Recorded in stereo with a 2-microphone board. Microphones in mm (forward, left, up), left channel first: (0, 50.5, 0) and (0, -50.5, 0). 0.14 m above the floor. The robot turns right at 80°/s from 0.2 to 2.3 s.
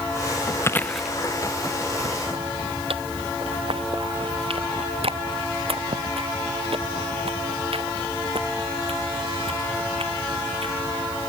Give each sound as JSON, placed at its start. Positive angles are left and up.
{"t": 0.6, "sound": "chewing", "side_deg": 30}